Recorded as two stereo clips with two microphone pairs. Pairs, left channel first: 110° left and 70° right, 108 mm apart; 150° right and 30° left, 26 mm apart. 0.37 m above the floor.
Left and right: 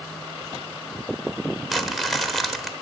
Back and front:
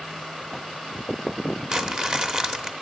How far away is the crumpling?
About 1.0 m.